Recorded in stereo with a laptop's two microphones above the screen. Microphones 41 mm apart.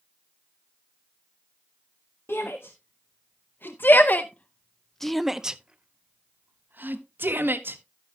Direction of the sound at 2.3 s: 70° left (ahead or behind).